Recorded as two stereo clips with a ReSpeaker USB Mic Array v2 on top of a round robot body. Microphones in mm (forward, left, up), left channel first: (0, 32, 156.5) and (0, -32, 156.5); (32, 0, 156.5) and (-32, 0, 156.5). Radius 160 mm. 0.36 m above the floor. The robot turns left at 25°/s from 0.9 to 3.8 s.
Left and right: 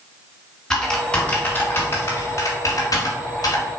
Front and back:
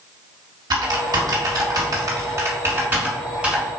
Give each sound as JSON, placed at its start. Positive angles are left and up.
{"t": 0.7, "sound": "typing on a keyboard", "azimuth_deg": 170, "distance_m": 1.3}